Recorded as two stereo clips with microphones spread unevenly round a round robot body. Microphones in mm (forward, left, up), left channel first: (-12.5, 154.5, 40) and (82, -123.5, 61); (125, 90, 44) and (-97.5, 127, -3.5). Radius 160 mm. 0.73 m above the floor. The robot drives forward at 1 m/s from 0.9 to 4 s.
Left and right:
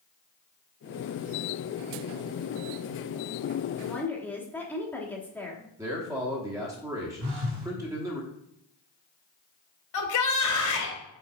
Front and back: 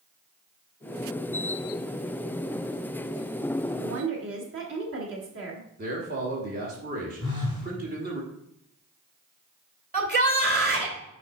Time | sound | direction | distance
3.8 | a woman speaking | 165° right | 1.0 m
5.8 | a man speaking | 150° right | 1.2 m
7.2 | a phone buzzing | 90° right | 2.5 m
9.9 | a shout | 130° left | 3 m